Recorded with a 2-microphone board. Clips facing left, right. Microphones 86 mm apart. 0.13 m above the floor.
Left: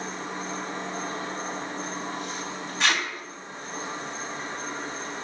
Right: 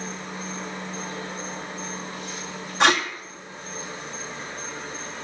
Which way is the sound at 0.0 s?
50° left (ahead or behind).